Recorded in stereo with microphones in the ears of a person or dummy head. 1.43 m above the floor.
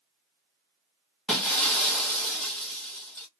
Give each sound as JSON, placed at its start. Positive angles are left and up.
{"t": 1.3, "sound": "breaking glass", "side_deg": 5, "distance_m": 0.8}